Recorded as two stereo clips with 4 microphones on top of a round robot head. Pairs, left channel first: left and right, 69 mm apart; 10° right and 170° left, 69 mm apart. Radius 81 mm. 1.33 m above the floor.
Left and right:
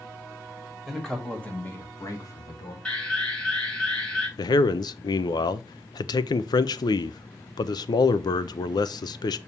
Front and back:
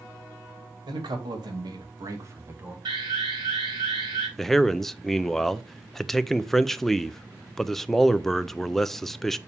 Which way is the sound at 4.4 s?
75° left.